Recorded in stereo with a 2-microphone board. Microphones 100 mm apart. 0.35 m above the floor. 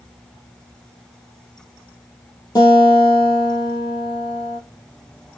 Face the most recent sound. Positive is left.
turn(degrees=40)  # may be behind; listen again after turning